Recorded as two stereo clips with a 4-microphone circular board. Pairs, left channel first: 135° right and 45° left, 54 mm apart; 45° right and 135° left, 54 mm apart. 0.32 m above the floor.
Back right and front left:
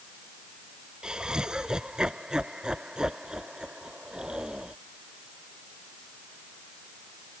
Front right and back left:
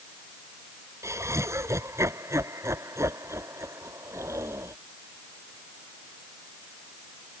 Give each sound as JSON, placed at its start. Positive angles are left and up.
{"t": 1.0, "sound": "laughter", "azimuth_deg": 120}